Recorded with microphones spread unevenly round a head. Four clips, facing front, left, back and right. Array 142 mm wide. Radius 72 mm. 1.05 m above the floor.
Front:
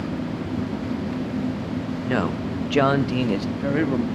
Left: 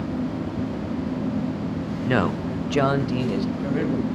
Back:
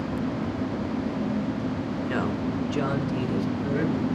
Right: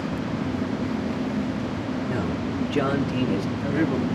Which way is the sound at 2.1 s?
55° left.